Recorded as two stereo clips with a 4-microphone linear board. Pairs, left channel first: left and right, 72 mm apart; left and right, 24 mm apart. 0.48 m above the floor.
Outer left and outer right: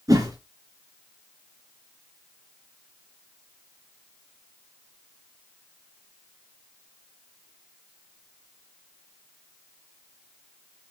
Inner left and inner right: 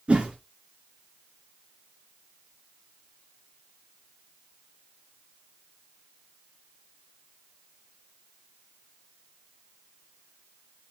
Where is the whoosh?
55° right (ahead or behind), 3 m.